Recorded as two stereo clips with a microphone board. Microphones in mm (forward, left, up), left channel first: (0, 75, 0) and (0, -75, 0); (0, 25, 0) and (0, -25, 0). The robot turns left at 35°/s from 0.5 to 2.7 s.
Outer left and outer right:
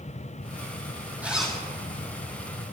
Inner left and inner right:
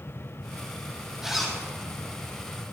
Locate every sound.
1.2 s a zipper: 10° right (ahead or behind), 2.5 m; by 1.6 s 5° left (ahead or behind), 2.5 m